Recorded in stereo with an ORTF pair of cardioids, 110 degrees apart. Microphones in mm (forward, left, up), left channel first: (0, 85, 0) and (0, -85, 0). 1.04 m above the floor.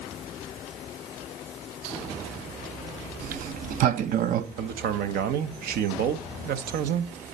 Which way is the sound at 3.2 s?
55° right.